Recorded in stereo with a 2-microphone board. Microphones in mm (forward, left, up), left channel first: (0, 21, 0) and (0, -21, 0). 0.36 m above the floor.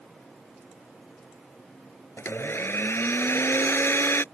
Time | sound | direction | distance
2.2 | a blender | 75° left (ahead or behind) | ?